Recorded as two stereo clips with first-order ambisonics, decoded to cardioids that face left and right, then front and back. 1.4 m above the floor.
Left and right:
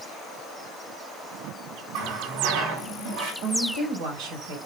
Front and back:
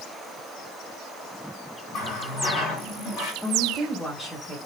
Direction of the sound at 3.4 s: 75° right.